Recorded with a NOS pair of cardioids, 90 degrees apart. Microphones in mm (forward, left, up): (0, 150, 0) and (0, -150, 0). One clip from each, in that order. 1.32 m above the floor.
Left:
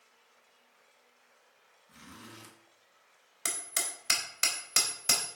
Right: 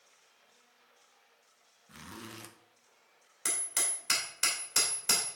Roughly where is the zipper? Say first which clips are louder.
Right 4 dB; ahead right.